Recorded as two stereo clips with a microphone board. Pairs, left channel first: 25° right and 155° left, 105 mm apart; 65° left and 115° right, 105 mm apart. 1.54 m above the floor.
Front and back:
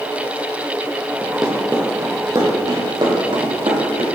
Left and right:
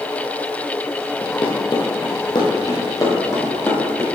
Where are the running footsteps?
60° left, 2 m; by 4.1 s 135° left, 4 m.